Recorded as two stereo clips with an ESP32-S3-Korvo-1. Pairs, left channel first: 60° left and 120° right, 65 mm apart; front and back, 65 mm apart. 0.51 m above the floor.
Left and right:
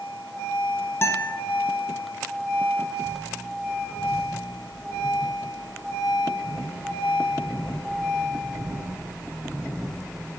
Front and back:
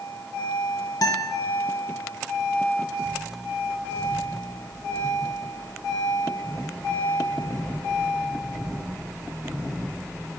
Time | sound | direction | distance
1.0 | a guitar | 10° left | 1.2 m